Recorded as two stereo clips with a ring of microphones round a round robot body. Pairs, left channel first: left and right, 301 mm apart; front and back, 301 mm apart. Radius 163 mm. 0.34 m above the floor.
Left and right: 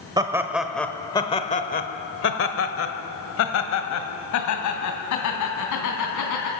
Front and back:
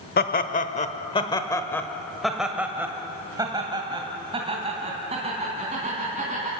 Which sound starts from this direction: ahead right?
Laughter, at 0.2 s.